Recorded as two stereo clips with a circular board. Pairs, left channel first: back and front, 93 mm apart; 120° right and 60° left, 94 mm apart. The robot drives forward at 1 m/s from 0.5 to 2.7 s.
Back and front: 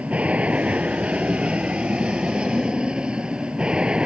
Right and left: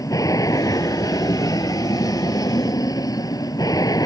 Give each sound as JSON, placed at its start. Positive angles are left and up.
{"t": 0.0, "sound": "an aircraft", "azimuth_deg": -75}